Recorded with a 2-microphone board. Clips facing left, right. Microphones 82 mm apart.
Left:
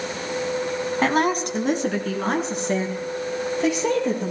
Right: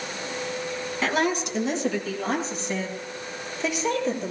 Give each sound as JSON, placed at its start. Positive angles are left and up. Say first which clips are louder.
{"t": 1.0, "sound": "a woman speaking", "louder": "left 3 dB", "side_deg": 40, "distance_m": 2.0}